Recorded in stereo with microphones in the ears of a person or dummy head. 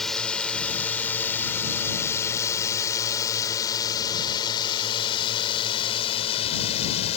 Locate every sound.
0.0 s a drone: centre (ahead or behind); by 7.2 s 35° left (ahead or behind)